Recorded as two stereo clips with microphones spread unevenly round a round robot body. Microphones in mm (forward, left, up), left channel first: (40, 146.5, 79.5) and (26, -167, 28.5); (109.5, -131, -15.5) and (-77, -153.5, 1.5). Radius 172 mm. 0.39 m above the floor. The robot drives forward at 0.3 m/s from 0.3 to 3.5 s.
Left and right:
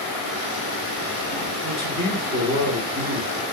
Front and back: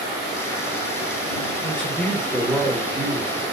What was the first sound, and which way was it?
A man speaking, 60° right.